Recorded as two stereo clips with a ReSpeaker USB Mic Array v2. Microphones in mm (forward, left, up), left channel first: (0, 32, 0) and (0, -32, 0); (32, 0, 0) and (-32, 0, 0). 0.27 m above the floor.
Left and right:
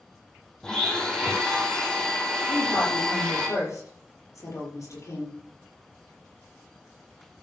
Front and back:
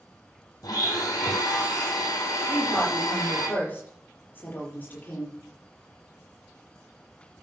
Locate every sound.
0.6 s a blender: 10° left, 3.5 m
2.5 s a woman speaking: 60° left, 6.5 m